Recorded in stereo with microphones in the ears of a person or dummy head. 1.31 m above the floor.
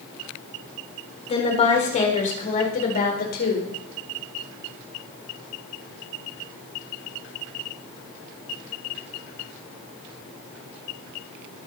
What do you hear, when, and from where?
1.3 s a woman speaking: 30° left (ahead or behind), 4 m; by 3.7 s 55° left (ahead or behind), 4.5 m